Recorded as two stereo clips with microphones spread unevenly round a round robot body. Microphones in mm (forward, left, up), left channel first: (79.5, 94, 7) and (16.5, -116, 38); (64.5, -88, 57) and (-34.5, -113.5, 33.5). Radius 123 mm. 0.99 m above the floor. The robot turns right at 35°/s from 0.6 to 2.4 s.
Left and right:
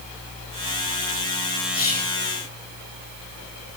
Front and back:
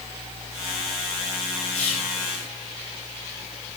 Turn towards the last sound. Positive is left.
turn(degrees=70)